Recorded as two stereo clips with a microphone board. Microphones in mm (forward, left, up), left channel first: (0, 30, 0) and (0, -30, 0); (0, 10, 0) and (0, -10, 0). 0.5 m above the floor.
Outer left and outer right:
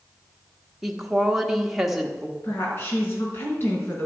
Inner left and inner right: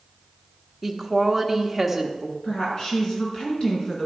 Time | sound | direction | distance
0.8 | a woman speaking | 5° right (ahead or behind) | 1.1 m
2.4 | a woman speaking | 40° left (ahead or behind) | 4.5 m